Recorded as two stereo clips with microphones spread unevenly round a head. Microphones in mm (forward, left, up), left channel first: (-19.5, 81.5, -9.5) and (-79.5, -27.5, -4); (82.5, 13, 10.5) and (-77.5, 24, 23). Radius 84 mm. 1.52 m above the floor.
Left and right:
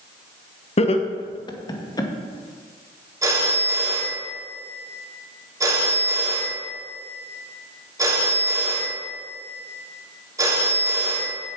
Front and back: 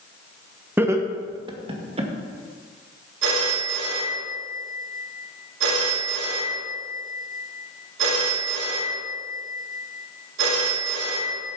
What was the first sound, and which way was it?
Laughter, 100° left.